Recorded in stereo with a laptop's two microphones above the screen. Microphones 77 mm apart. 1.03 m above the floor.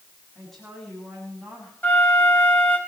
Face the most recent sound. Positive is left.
turn(degrees=25)  # may be behind; listen again after turning